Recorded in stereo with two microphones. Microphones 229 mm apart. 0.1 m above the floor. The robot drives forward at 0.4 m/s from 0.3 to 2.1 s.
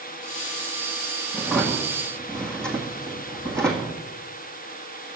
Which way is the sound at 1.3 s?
5° left (ahead or behind).